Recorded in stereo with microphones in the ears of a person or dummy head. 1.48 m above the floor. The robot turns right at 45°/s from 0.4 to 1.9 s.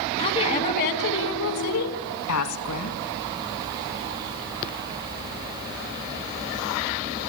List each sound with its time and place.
0.2 s a woman speaking: 35° left, 2.5 m; by 2.9 s 100° left, 2.5 m